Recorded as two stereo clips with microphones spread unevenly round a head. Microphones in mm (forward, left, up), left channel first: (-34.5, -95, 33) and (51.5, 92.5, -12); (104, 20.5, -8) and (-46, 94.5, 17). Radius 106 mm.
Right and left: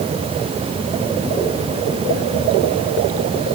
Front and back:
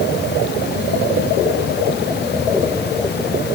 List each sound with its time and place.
Only background noise.